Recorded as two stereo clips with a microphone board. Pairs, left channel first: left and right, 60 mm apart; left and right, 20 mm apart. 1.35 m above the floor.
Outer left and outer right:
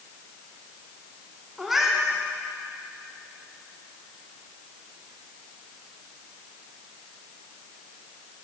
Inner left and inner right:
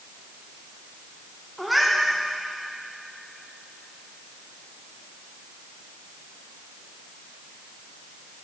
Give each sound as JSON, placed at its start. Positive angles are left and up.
{"t": 1.6, "sound": "a cat meowing", "side_deg": -5, "distance_m": 1.7}